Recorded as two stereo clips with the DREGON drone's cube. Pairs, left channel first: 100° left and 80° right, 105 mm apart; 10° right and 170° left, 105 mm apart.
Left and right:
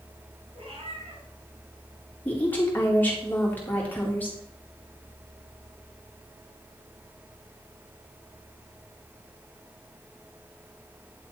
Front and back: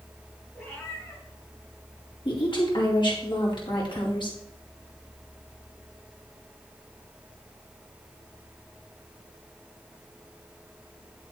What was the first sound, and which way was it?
A cat meowing, 75° right.